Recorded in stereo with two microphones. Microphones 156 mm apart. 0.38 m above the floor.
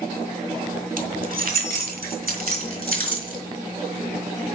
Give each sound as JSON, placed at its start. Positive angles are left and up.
{"t": 1.0, "sound": "keys jangling", "side_deg": -65, "distance_m": 2.0}